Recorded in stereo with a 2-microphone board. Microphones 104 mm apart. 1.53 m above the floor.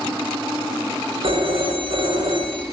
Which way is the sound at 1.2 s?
75° right (ahead or behind).